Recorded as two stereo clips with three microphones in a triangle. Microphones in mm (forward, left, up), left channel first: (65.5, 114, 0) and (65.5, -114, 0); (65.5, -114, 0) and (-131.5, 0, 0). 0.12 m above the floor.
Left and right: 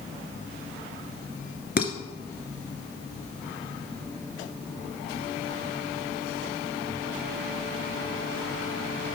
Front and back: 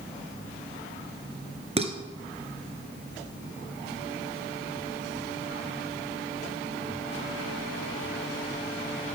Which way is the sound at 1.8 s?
100° left.